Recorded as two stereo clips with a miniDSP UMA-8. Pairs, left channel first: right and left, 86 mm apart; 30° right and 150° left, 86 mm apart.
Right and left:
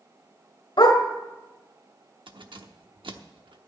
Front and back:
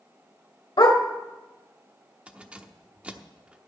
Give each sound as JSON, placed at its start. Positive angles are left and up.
{"t": 0.8, "sound": "a dog barking", "azimuth_deg": -60, "distance_m": 1.6}
{"t": 2.3, "sound": "keys jangling", "azimuth_deg": 75, "distance_m": 0.9}